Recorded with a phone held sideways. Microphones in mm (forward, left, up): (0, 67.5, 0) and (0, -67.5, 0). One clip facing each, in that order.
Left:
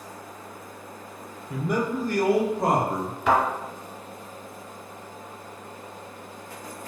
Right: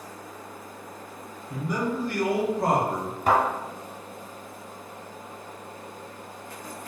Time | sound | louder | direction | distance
1.5 | a man speaking | left 2 dB | 70° left (ahead or behind) | 0.6 m
3.3 | a thud | even | 40° right (ahead or behind) | 1.6 m